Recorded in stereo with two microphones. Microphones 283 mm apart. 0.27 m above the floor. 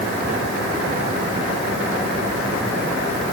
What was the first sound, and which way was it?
Only background noise.